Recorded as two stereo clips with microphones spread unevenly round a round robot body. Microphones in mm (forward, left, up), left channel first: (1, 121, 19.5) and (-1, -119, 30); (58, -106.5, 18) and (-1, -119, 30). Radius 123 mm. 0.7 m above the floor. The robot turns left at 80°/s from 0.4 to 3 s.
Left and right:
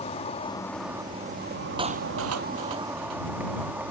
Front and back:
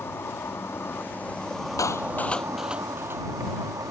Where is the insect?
35° left; by 3.9 s 175° right.